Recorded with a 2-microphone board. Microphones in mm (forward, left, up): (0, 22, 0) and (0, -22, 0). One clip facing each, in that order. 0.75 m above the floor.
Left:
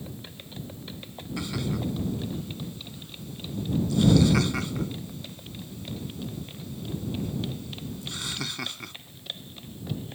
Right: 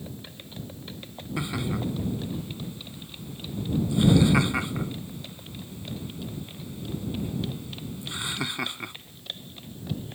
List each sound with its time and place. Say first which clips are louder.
1.4 s laughter: right 1 dB; 20° right (ahead or behind)